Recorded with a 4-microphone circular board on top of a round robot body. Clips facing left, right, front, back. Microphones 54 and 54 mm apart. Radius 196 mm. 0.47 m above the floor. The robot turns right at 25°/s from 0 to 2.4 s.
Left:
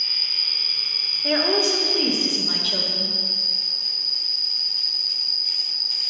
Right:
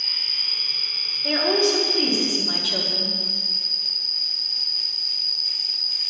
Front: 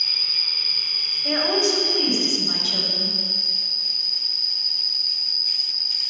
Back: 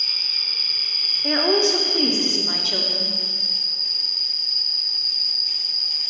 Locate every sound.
0.0 s an insect: 70° left, 2 m; by 6.1 s 130° left, 2 m
1.2 s a woman speaking: 160° left, 1.8 m; by 3.1 s 170° right, 1.8 m